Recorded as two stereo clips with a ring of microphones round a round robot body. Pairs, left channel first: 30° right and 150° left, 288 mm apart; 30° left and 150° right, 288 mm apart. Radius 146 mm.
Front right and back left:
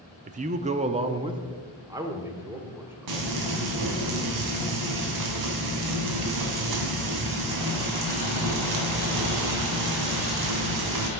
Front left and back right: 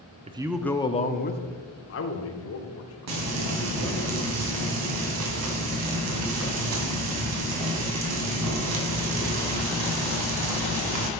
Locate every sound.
0.3 s a man speaking: 175° left, 0.7 m; by 3.5 s 65° left, 2.5 m
3.1 s frying: 175° left, 2 m